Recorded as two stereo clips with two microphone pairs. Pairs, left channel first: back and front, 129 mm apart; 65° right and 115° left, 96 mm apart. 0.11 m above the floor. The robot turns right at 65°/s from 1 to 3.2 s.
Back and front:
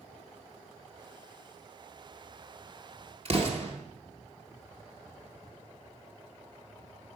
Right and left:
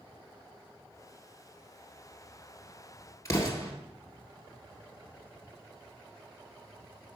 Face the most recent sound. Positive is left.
turn(degrees=-15)